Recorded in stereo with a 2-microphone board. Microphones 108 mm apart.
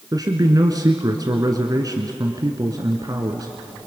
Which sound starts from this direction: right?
A man speaking, at 0.1 s.